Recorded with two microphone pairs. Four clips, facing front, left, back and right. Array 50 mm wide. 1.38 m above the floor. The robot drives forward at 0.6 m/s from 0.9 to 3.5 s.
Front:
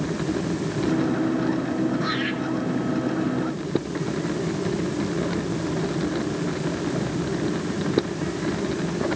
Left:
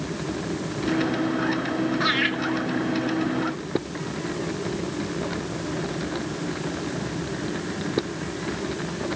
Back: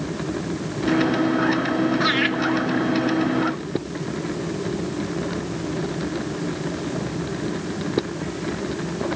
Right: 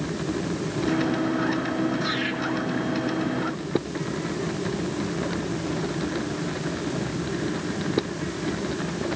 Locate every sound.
2.0 s laughter: 150° left, 3.5 m